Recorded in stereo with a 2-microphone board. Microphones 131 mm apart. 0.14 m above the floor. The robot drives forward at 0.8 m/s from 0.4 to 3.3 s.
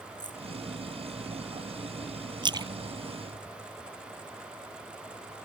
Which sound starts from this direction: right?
A splash, at 2.4 s.